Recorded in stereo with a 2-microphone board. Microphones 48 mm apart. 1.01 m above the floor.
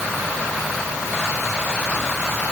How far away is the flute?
No flute in this recording.